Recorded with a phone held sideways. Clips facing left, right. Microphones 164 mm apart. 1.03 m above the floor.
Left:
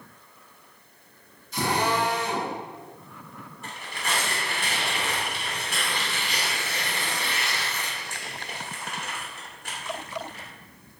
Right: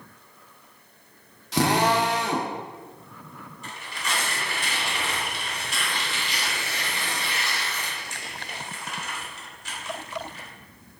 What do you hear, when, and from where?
1.5 s a drill: 80° right, 1.1 m
3.6 s tearing paper: 55° left (ahead or behind), 2.5 m